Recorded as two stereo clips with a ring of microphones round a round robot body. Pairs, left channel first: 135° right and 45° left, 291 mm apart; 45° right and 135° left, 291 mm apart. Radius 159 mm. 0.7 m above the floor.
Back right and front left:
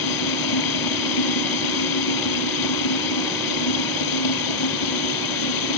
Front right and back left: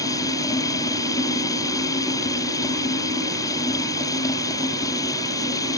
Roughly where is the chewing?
I don't hear chewing.